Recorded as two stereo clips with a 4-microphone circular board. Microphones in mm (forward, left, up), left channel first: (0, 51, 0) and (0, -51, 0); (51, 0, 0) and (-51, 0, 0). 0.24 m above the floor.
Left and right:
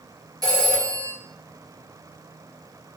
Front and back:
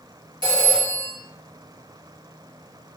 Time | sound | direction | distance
0.4 | a phone ringing | 140° right | 3.5 m